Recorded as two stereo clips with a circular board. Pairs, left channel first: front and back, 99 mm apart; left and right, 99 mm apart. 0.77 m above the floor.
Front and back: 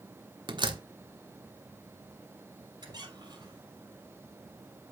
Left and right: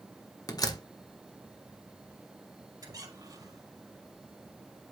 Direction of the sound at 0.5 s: 140° left.